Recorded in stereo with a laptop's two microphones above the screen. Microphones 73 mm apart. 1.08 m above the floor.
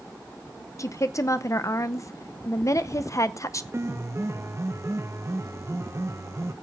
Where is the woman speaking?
45° left (ahead or behind), 0.7 m.